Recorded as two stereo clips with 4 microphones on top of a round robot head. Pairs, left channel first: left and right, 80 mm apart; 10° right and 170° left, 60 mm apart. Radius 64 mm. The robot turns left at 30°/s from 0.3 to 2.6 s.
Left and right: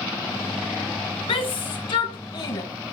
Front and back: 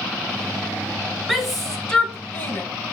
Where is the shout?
85° left, 2.5 m; by 2.6 s 45° left, 2.5 m.